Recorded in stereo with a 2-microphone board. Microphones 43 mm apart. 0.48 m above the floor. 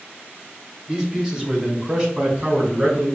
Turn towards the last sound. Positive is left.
turn(degrees=-20)  # may be behind; listen again after turning